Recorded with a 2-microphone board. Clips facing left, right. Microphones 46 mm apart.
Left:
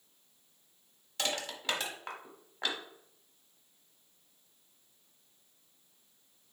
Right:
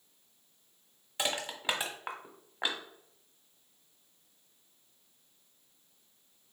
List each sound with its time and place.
1.2 s crushing: 20° right (ahead or behind), 1.0 m